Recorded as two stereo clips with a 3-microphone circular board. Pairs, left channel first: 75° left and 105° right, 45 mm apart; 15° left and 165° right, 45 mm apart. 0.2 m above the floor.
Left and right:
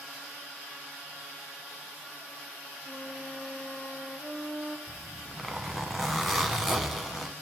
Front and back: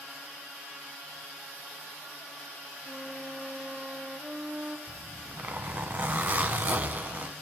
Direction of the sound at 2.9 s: 125° left.